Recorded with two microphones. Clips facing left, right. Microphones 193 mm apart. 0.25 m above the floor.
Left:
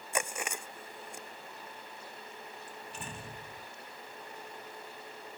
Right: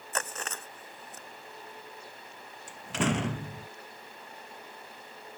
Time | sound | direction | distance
0.1 | chewing | 10° left (ahead or behind) | ?
2.7 | a door slam | 85° right | ?